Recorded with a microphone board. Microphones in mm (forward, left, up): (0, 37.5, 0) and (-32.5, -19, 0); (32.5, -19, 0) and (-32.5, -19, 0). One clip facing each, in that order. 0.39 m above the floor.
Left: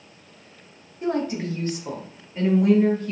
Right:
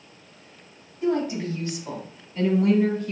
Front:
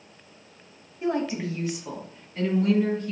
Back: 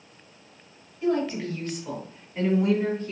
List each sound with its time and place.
1.0 s a woman speaking: 55° left, 2.0 m; by 3.1 s 160° left, 1.7 m